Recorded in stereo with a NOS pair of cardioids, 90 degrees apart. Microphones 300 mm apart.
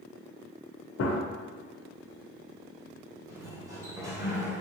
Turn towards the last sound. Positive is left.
turn(degrees=-10)